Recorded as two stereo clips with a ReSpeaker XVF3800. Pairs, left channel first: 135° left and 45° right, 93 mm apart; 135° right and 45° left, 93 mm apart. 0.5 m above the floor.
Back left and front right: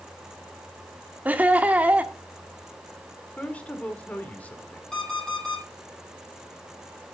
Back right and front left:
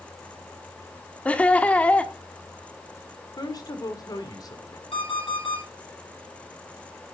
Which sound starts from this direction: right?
Laughter, at 1.2 s.